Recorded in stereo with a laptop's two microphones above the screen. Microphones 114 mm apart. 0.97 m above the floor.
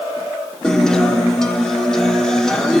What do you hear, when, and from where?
0.6 s a guitar: 5° left (ahead or behind), 1.1 m